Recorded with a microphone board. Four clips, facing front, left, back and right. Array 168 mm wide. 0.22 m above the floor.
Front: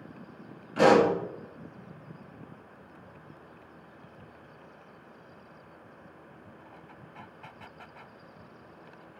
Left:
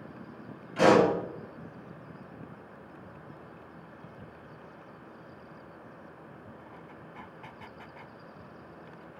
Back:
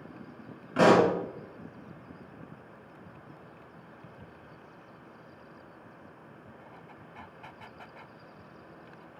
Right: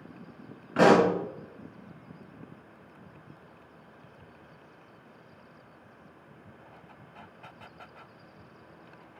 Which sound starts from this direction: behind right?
A pop, at 0.8 s.